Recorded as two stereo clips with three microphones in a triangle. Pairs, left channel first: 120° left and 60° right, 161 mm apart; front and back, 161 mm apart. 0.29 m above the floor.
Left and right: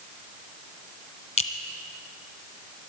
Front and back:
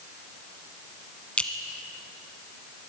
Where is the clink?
85° left, 1.3 m.